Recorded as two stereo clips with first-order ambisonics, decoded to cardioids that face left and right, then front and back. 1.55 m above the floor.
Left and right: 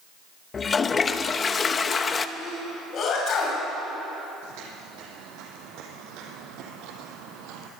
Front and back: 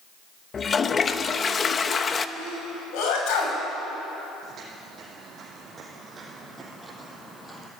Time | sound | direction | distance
0.5 | a toilet flushing | 45° left | 0.8 m
2.4 | a sneeze | 35° left | 8.5 m
4.4 | footsteps | 120° right | 5 m